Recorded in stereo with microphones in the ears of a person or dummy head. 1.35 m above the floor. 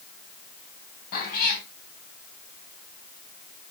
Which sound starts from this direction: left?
A cat meowing, at 1.1 s.